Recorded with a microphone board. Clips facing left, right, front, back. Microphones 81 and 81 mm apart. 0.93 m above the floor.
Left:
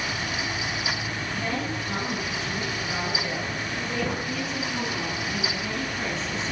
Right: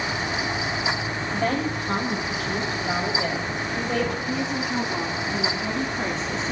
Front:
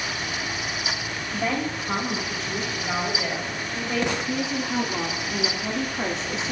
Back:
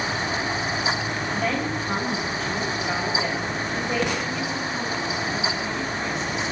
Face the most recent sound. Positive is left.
turn(degrees=-40)